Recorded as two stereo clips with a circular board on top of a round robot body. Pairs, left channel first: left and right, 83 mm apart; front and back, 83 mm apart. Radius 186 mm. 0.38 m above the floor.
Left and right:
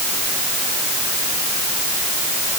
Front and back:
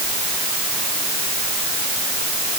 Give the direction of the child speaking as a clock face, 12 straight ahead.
I don't hear a child speaking.